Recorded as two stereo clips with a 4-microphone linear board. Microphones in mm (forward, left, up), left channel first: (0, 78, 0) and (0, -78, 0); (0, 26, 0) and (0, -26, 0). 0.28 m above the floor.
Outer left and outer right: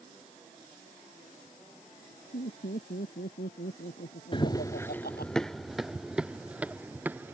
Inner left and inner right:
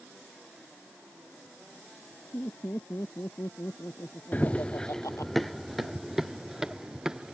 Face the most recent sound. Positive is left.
turn(degrees=-10)  # may be behind; listen again after turning